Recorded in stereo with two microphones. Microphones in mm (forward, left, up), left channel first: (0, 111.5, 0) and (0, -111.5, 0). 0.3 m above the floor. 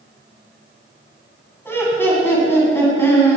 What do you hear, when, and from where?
1.6 s laughter: 10° left (ahead or behind), 2 m